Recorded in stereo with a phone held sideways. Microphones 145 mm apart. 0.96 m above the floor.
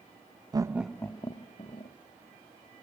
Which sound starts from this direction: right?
Laughter, at 0.5 s.